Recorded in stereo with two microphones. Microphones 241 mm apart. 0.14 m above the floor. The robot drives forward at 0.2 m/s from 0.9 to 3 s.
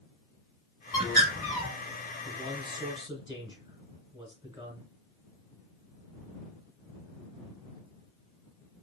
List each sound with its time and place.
0.9 s a bird: 10° right (ahead or behind), 1.5 m
2.2 s a man speaking: 20° right (ahead or behind), 1.3 m